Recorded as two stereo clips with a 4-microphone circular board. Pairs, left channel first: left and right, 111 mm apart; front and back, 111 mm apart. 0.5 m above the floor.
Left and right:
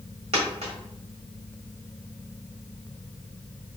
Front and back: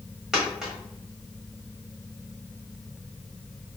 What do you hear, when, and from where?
0.3 s a dropped coin: 95° right, 1.1 m